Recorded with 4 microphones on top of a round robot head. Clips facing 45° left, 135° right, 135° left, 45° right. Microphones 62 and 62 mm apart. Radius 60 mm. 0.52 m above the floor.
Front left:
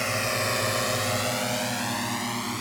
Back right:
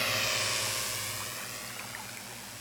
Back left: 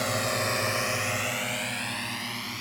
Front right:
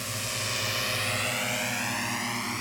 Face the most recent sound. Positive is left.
turn(degrees=25)